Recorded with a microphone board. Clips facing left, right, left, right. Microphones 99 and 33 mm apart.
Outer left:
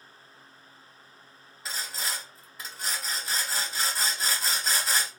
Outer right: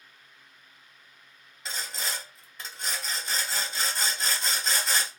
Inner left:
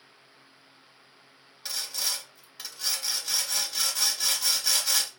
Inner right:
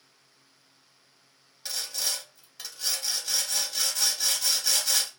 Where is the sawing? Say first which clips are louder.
Even, even; 5° left (ahead or behind), 1.3 m.